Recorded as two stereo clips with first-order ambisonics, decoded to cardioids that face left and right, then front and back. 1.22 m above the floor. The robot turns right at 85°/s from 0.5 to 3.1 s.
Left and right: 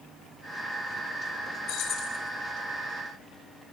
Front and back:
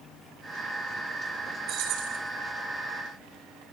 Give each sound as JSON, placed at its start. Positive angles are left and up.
{"t": 1.7, "sound": "keys jangling", "azimuth_deg": 130, "distance_m": 8.0}